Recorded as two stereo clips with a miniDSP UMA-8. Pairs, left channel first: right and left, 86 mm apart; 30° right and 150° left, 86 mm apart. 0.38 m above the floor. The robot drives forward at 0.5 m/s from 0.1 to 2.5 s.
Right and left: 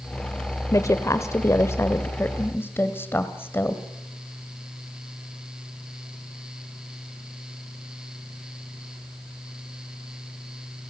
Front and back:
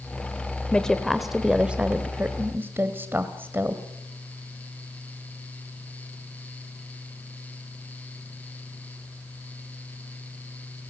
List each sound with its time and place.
0.7 s a woman speaking: 105° right, 1.0 m; by 3.8 s 150° right, 1.5 m